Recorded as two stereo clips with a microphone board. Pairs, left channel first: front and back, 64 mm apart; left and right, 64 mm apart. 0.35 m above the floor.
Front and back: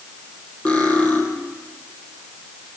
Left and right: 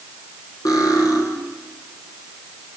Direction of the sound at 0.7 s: 70° left.